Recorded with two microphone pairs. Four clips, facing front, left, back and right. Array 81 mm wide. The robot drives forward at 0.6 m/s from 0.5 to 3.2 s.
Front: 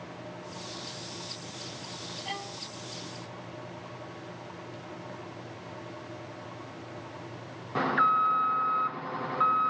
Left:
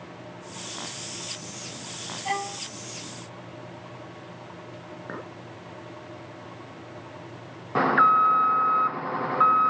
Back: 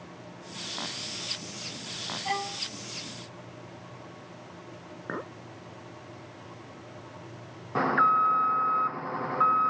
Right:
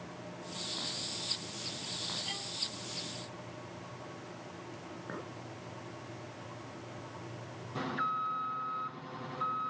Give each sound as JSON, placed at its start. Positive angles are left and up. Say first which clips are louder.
{"t": 2.2, "sound": "a violin", "louder": "left 15 dB, back 8 dB", "azimuth_deg": 120}
{"t": 5.1, "sound": "a clink", "louder": "left 6 dB, back 6 dB", "azimuth_deg": 155}
{"t": 7.8, "sound": "an alarm", "louder": "left 16 dB, back 2 dB", "azimuth_deg": 100}